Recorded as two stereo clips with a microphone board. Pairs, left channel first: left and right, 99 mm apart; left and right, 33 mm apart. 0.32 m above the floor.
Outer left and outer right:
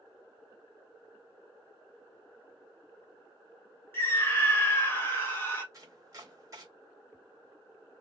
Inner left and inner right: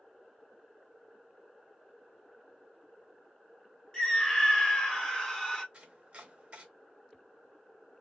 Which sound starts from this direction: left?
A scream, at 3.9 s.